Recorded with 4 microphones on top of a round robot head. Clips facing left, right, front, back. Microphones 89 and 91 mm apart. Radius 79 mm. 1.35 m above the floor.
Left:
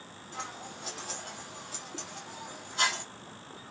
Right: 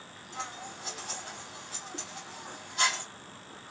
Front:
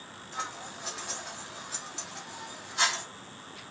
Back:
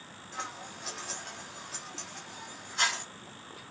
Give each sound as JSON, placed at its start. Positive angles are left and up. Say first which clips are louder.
{"t": 0.3, "sound": "scissors", "louder": "right 1 dB, front 2 dB", "azimuth_deg": 85, "distance_m": 0.8}